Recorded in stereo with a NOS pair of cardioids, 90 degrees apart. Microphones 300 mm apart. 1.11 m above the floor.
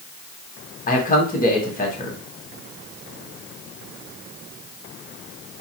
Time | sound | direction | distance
0.9 | a man speaking | 30° left | 1.7 m